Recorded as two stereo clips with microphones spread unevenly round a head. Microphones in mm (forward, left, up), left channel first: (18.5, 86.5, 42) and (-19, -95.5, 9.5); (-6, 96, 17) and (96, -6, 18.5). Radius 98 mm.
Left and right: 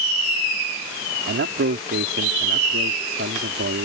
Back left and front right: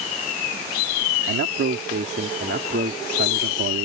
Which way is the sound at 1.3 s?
65° right.